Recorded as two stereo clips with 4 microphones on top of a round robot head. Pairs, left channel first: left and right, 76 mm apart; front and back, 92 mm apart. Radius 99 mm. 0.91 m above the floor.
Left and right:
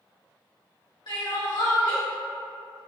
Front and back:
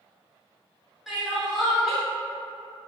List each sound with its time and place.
1.1 s crying: 95° left, 1.5 m